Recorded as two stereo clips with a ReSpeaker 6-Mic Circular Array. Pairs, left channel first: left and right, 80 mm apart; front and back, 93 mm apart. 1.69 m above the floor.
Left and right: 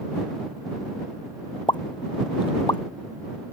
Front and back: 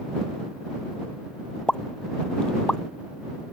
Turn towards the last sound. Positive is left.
turn(degrees=80)